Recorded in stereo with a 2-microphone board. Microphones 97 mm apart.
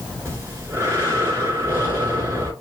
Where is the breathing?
25° right (ahead or behind), 1.9 m.